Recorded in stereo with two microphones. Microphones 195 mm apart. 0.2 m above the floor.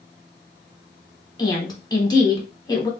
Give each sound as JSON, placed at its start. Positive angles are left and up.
{"t": 1.4, "sound": "a woman speaking", "side_deg": 20, "distance_m": 1.2}